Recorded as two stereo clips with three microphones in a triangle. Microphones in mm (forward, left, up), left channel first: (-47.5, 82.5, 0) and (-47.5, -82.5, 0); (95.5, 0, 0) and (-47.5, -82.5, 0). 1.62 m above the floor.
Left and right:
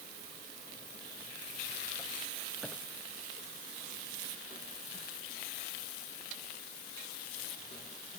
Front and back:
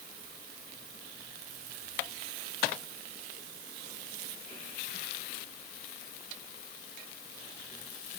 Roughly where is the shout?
I don't hear a shout.